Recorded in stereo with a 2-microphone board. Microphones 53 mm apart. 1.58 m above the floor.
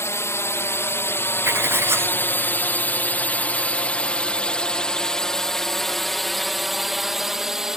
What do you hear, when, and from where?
0.0 s a drone: 60° left (ahead or behind); by 7.8 s 10° right (ahead or behind)
1.4 s writing: 50° right (ahead or behind)